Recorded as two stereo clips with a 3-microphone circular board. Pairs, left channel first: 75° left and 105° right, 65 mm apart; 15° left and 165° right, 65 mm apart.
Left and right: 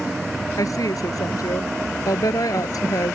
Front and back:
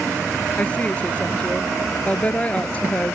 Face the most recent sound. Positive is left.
turn(degrees=80)